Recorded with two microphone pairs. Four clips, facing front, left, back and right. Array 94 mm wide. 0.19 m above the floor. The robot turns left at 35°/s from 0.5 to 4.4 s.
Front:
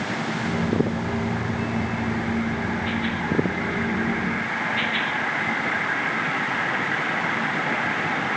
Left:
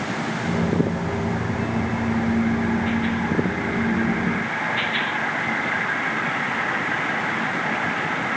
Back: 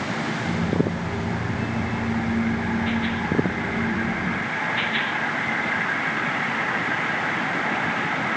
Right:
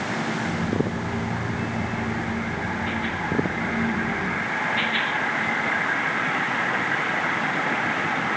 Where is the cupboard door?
No cupboard door in this recording.